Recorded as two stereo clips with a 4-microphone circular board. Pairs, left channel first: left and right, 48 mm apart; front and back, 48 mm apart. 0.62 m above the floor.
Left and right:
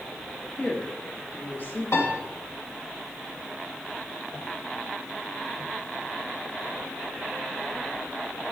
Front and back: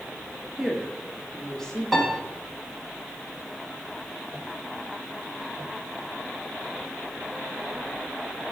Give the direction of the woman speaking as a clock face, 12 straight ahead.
9 o'clock.